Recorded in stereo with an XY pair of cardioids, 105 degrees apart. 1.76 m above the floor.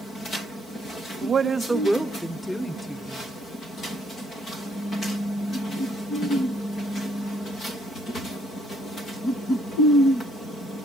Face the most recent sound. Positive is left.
turn(degrees=20)